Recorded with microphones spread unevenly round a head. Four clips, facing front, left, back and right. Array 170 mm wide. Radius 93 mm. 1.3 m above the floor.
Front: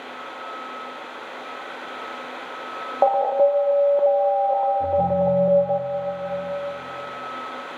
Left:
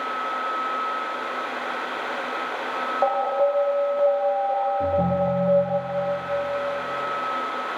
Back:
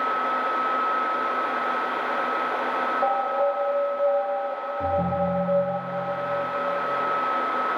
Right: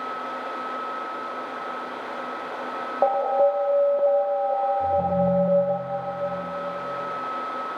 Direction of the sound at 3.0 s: 30° right.